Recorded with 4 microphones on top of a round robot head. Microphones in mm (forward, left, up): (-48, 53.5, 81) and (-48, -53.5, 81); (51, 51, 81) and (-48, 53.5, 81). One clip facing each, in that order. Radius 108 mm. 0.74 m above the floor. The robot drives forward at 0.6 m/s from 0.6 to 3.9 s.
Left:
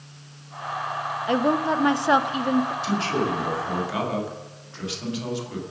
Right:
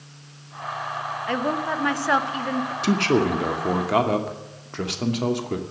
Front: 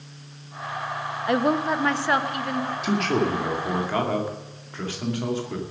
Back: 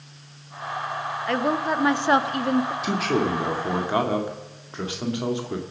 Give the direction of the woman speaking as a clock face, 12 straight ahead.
10 o'clock.